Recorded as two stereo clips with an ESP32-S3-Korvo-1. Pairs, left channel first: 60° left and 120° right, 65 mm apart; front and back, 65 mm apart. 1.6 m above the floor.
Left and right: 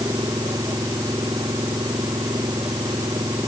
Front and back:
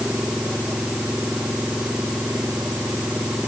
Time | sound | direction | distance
0.0 | an engine running | 100° right | ?